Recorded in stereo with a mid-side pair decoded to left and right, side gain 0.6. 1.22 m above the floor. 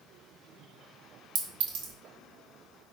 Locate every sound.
1.4 s a clink: 65° right, 1.1 m